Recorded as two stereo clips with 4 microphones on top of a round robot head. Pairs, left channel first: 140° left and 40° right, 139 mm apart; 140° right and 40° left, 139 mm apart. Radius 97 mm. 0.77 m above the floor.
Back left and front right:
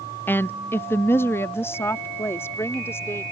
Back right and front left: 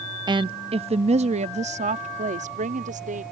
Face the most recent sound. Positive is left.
turn(degrees=70)